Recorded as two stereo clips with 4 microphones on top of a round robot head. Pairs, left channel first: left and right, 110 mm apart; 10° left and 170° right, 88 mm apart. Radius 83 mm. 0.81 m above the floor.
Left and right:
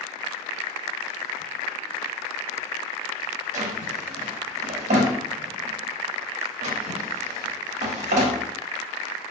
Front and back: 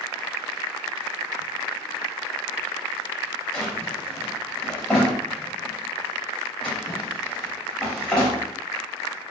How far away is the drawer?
About 0.6 m.